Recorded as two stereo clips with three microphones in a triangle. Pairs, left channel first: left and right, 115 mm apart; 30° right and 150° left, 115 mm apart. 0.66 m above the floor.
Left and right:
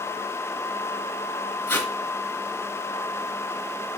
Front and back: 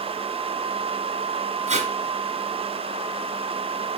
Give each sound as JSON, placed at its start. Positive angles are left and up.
{"t": 1.7, "sound": "tape being pulled", "azimuth_deg": 165, "distance_m": 2.5}